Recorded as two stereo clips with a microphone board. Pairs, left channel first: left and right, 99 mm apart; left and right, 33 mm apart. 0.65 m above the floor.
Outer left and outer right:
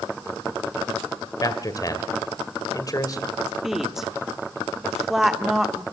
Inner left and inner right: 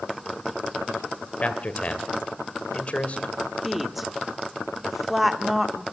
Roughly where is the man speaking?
Left.